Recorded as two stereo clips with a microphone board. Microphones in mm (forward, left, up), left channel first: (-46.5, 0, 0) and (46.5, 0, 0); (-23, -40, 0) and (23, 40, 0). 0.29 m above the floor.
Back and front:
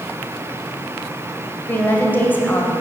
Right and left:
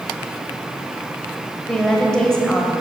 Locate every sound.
1.7 s a woman speaking: 175° left, 1.1 m